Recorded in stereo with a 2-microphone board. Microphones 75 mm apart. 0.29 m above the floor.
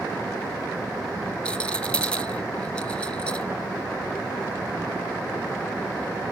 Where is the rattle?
15° left (ahead or behind), 0.9 m.